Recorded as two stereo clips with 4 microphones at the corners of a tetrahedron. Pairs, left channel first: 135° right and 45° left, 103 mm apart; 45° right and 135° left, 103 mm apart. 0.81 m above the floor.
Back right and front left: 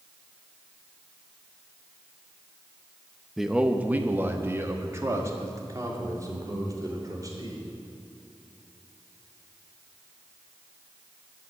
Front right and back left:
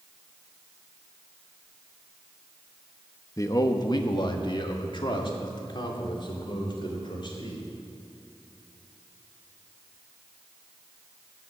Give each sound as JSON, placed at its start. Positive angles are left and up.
{"t": 3.4, "sound": "a man speaking", "azimuth_deg": -40, "distance_m": 0.9}